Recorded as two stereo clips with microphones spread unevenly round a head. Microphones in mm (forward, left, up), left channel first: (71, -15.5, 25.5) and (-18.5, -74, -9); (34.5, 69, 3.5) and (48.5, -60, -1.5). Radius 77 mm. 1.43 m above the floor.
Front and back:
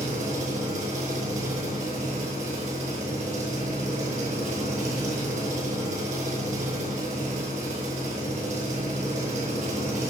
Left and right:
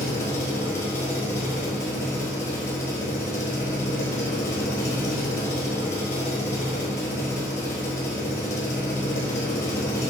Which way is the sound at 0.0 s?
170° left.